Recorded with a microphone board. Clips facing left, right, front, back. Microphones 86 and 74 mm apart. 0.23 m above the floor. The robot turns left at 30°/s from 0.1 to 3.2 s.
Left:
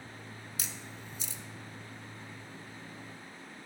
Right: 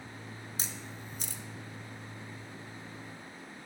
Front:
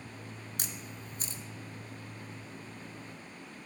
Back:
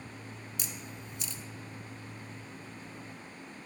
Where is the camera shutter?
35° right, 0.9 m; by 1.4 s 60° right, 0.9 m.